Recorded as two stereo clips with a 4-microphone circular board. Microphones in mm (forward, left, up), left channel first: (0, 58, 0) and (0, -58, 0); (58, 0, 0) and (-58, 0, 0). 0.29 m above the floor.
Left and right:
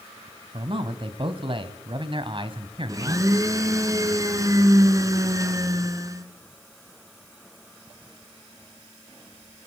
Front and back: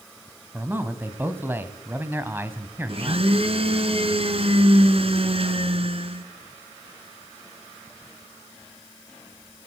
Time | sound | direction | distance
0.5 | a man speaking | 110° right | 2 m
2.9 | a blender | 150° right | 2.5 m